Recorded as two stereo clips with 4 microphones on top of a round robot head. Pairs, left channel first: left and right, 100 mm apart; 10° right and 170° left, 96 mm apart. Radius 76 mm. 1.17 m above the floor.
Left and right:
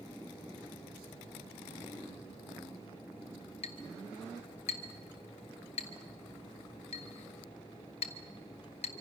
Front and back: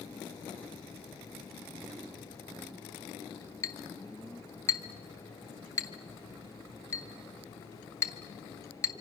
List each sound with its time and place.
3.6 s a clink: 45° left, 1.3 m